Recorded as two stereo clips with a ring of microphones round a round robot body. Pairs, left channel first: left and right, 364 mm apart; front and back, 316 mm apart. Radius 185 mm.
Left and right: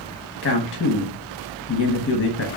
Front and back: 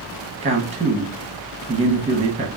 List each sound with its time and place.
0.4 s a man speaking: 125° left, 0.9 m